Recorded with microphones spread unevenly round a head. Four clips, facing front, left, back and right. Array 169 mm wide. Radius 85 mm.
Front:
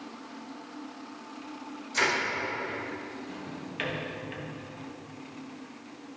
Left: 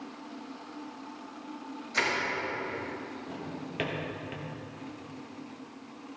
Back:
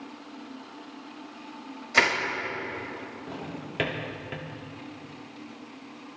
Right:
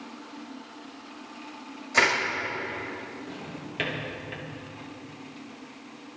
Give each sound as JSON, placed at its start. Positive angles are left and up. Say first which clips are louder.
{"t": 1.9, "sound": "crushing", "louder": "right 7 dB, back 4 dB", "azimuth_deg": -145, "distance_m": 5.0}
{"t": 3.3, "sound": "a drawer", "louder": "even, back 2 dB", "azimuth_deg": 175, "distance_m": 1.6}